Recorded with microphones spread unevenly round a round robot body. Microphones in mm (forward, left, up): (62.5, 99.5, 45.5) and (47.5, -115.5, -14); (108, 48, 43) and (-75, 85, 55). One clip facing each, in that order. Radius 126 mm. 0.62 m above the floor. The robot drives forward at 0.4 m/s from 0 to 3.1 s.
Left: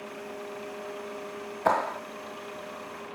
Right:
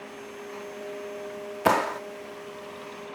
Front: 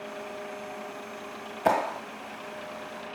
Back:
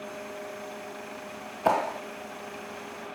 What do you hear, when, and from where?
1.6 s a clap: 90° right; by 2.0 s 105° right